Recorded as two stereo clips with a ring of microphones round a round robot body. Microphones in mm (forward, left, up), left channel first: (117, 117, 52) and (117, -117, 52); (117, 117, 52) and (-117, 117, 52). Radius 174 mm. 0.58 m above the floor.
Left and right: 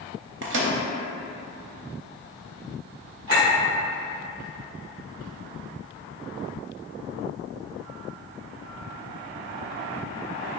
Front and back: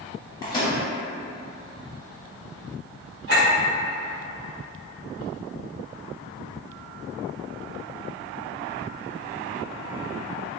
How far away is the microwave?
About 0.7 m.